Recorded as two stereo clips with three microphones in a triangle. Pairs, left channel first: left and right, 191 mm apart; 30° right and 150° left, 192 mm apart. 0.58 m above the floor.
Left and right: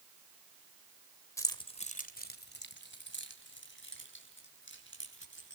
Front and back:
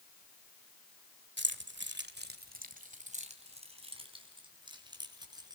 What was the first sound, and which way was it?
Keys jangling, 165° left.